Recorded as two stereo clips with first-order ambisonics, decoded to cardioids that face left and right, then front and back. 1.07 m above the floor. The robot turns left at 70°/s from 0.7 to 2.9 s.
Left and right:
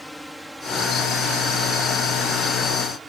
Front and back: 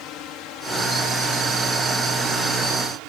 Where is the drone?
5° left; by 3.1 s 170° right.